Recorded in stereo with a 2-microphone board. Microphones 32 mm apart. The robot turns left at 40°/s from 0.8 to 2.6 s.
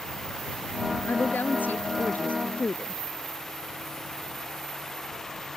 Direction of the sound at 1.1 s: 95° left.